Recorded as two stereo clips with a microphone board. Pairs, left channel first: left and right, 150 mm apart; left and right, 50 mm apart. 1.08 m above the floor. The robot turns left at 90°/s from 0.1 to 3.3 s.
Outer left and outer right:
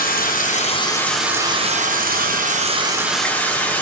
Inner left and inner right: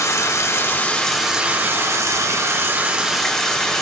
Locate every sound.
0.0 s running water: 95° left, 1.0 m; by 3.8 s 170° left, 1.0 m